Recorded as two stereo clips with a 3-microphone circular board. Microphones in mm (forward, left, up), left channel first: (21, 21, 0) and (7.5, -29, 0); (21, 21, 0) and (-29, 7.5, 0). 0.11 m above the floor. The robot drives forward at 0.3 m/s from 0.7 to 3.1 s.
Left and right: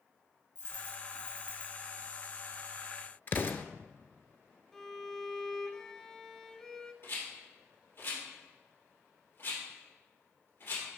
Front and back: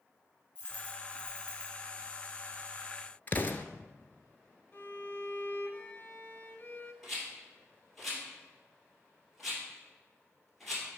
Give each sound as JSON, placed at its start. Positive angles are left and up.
{"t": 0.6, "sound": "a dropped coin", "azimuth_deg": 75, "distance_m": 3.0}
{"t": 3.3, "sound": "an explosion", "azimuth_deg": 55, "distance_m": 0.6}
{"t": 4.7, "sound": "a violin", "azimuth_deg": 0, "distance_m": 0.7}
{"t": 7.0, "sound": "a rattle", "azimuth_deg": 105, "distance_m": 2.5}